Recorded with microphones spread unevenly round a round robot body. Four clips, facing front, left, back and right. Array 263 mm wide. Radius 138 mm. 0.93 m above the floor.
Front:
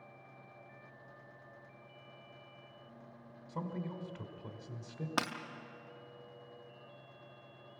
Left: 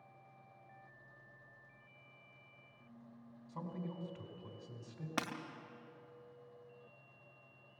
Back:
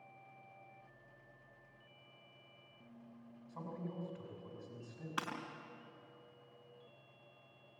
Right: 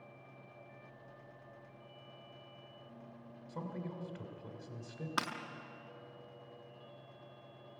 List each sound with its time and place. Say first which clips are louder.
3.5 s a man speaking: right 2 dB, front 5 dB; 10° right, 3 m
5.2 s breaking glass: right 2 dB, front 5 dB; 25° left, 1.0 m